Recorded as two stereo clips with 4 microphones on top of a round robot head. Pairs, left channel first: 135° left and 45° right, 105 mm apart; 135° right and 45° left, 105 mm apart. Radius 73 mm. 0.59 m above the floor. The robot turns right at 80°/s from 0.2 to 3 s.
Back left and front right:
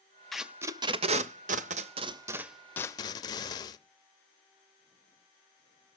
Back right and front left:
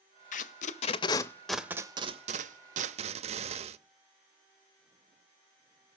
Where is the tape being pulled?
140° right, 0.6 m; by 3.8 s 75° left, 0.6 m.